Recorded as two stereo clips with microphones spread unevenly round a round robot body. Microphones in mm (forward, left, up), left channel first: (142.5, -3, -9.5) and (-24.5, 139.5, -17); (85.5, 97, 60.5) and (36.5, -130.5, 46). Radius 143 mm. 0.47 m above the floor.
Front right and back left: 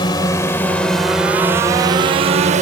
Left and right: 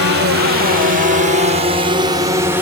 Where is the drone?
110° right; by 2.6 s straight behind.